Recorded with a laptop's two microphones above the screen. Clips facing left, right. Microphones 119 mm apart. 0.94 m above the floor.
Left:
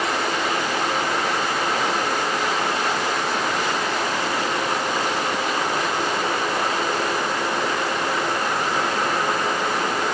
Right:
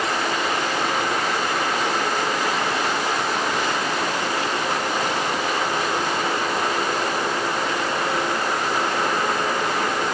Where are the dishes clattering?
I don't hear dishes clattering.